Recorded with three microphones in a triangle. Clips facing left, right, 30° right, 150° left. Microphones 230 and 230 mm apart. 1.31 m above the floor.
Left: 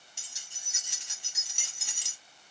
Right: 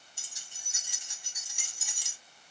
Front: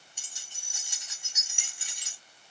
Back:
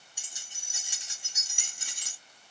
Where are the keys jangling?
70° left, 1.7 m; by 2.2 s 115° left, 1.6 m.